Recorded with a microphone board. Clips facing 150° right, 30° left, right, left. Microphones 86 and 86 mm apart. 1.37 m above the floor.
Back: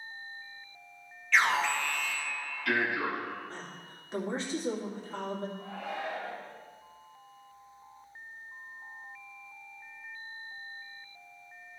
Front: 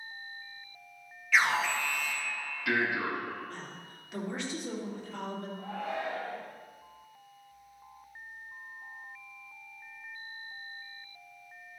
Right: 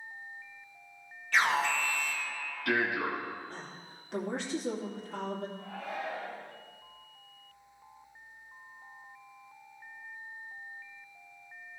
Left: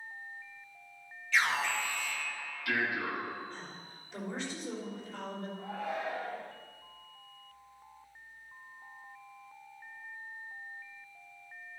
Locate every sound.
1.3 s an alarm: 55° right, 1.8 m
3.5 s a woman speaking: 95° right, 2.5 m
5.6 s a shout: 35° left, 3.5 m